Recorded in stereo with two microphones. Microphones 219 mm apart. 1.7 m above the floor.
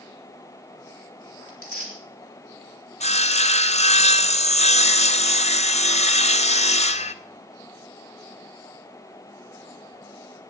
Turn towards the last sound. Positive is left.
turn(degrees=30)  # may be behind; listen again after turning